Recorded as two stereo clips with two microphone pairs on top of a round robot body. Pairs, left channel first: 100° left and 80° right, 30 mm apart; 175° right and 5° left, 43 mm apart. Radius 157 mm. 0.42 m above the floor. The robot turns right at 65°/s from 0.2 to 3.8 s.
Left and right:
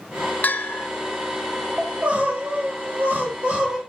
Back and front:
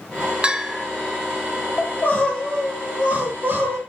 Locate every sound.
0.4 s a bell: 70° left, 0.5 m; by 0.9 s 100° left, 0.5 m
1.8 s crying: 145° right, 1.4 m; by 3.8 s 15° right, 1.4 m